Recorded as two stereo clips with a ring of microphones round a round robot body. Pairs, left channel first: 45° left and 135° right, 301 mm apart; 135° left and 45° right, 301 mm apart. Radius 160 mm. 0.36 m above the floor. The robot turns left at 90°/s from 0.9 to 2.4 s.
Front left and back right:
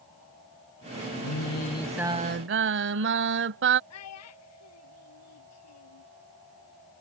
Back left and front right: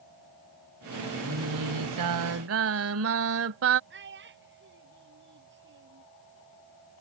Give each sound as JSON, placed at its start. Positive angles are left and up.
{"t": 1.2, "sound": "singing", "azimuth_deg": 20}
{"t": 3.9, "sound": "a child speaking", "azimuth_deg": 10}